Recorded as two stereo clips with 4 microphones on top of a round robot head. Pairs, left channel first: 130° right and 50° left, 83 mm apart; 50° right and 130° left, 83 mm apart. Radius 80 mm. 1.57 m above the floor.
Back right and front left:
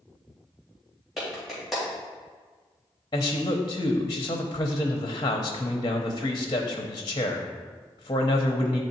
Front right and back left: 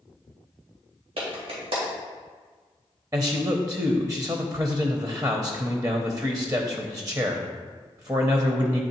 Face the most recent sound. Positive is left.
turn(degrees=-175)